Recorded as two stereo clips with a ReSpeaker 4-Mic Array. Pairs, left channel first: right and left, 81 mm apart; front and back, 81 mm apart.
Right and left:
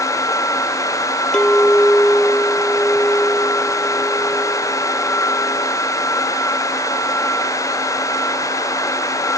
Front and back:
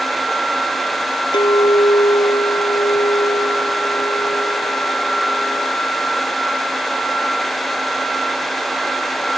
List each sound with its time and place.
1.3 s a clink: 10° right